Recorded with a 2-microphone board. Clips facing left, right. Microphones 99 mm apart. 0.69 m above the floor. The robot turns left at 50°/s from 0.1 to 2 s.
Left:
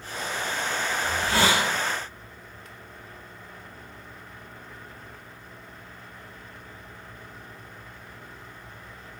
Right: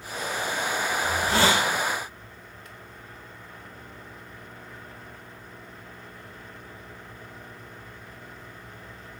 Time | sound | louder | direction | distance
1.0 | a hiss | right 1 dB | 25° right (ahead or behind) | 1.2 m